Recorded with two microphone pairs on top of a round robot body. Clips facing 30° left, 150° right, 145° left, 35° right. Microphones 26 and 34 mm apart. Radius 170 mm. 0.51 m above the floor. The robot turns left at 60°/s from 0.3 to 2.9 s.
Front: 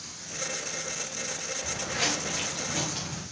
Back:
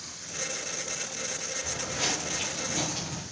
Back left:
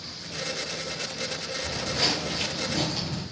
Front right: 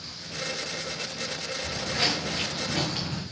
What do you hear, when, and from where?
1.6 s footsteps: 35° left, 4.5 m; by 3.2 s 40° right, 3 m